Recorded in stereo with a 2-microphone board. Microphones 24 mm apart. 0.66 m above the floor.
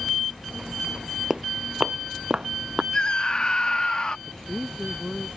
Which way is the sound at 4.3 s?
5° left (ahead or behind).